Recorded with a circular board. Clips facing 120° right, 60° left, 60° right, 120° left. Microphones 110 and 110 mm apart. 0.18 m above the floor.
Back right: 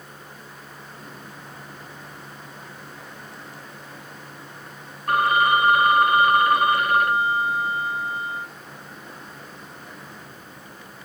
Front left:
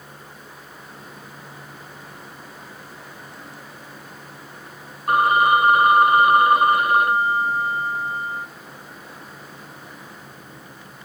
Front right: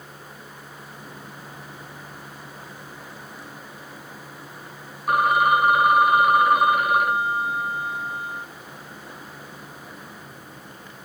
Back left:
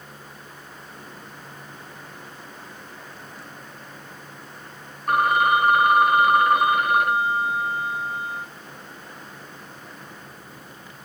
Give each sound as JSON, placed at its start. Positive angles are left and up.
{"t": 5.1, "sound": "a phone ringing", "azimuth_deg": 20, "distance_m": 0.6}